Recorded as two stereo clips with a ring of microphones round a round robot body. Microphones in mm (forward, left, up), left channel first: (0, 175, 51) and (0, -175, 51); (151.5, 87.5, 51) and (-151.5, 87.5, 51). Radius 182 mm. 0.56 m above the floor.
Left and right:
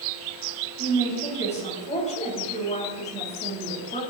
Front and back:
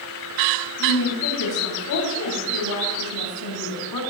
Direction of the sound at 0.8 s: 20° left.